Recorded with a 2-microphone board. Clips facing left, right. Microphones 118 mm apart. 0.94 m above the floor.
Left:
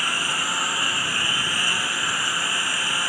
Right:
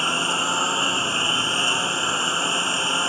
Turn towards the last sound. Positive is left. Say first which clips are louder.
# right 4 dB
turn(degrees=-25)  # may be behind; listen again after turning